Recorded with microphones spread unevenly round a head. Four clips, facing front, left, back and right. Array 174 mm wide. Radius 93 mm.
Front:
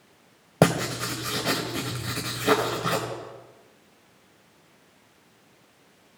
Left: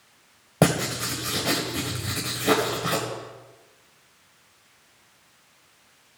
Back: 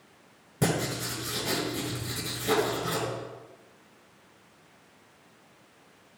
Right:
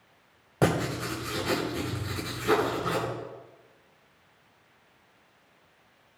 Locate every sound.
0.6 s writing: 35° left, 1.9 m